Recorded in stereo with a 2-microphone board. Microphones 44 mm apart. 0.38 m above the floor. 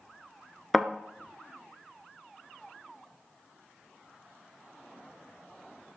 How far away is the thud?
About 0.5 m.